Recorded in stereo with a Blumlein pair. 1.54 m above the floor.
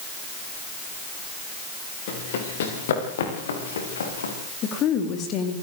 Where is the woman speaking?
35° left, 3.5 m.